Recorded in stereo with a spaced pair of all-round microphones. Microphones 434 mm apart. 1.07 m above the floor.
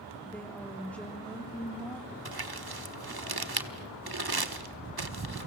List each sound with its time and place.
0.2 s a woman speaking: 5° left (ahead or behind), 2.5 m
2.2 s crumpling: 55° right (ahead or behind), 1.2 m